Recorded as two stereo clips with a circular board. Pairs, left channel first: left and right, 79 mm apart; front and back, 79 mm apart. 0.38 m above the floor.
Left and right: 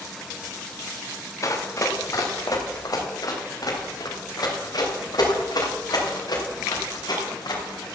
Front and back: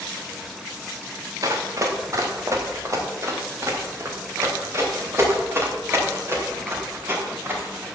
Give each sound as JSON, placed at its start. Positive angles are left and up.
{"t": 1.4, "sound": "running footsteps", "azimuth_deg": 135, "distance_m": 3.0}